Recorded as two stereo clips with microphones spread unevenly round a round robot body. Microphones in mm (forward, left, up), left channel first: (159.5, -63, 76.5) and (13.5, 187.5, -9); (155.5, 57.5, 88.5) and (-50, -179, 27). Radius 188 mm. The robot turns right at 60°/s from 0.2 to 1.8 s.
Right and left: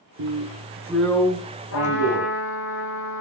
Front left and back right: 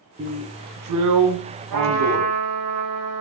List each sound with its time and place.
0.2 s a drill: 160° left, 2.5 m; by 2.3 s 105° right, 2.5 m
1.7 s a trumpet: 120° right, 8.5 m; by 3.2 s 110° right, 8.5 m